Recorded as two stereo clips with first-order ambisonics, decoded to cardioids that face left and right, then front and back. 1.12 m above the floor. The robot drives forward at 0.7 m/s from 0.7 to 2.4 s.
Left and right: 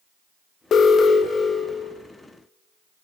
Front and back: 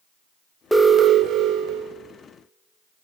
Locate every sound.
0.7 s an alarm: 90° left, 0.5 m; by 2.0 s 165° left, 1.0 m